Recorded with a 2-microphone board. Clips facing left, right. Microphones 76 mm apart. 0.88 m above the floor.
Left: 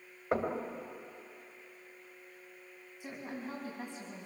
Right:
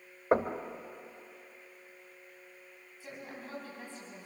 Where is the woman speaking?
15° left (ahead or behind), 5.5 m.